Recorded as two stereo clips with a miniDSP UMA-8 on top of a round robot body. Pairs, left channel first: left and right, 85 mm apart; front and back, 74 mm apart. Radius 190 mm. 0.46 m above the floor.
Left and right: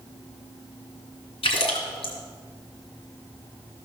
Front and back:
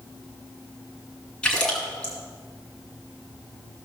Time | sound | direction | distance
1.4 | a splash | 80° left | 2 m